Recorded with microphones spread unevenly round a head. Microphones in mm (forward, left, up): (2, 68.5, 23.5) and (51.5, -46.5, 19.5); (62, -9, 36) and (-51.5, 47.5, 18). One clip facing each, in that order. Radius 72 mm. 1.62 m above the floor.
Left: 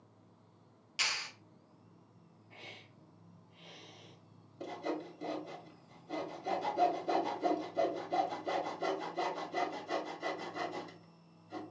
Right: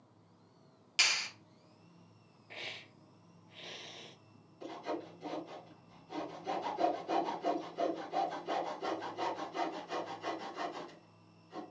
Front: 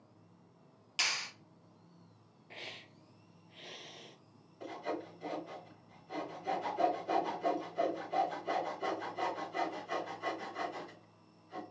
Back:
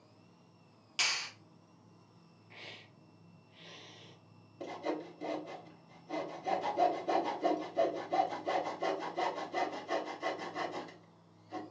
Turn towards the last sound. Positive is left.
turn(degrees=105)